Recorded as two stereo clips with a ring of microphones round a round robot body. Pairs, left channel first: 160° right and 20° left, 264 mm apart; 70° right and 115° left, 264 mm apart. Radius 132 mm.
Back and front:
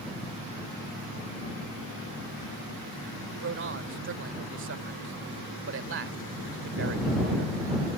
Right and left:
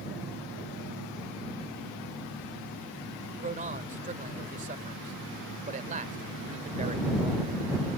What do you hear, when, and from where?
3.3 s a man speaking: 55° left